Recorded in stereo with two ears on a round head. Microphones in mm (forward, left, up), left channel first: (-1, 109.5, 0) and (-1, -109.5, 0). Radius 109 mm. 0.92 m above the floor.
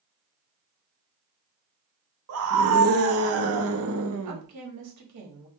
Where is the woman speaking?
75° right (ahead or behind), 1.3 m.